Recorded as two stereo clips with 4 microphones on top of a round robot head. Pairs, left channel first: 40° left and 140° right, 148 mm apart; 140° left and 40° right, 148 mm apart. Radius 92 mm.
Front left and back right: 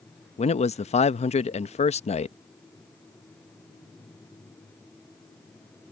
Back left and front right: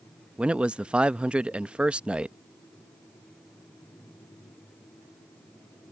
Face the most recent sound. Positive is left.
turn(degrees=40)